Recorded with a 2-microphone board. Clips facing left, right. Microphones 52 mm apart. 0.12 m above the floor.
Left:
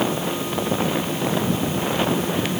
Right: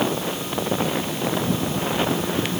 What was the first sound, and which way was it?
Only background noise.